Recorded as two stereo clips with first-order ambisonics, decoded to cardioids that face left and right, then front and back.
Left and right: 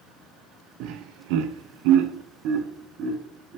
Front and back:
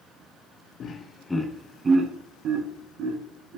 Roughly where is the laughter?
Ahead right.